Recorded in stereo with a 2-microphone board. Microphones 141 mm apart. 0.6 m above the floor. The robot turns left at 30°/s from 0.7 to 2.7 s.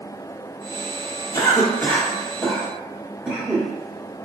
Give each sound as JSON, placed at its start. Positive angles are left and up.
{"t": 1.3, "sound": "a cough", "side_deg": 25, "distance_m": 1.3}